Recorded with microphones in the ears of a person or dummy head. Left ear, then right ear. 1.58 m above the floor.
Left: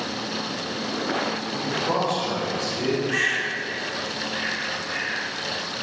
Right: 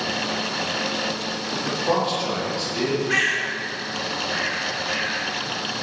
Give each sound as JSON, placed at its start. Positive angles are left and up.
{"t": 1.5, "sound": "a man speaking", "side_deg": -45, "distance_m": 2.5}
{"t": 3.1, "sound": "a bird", "side_deg": -65, "distance_m": 2.0}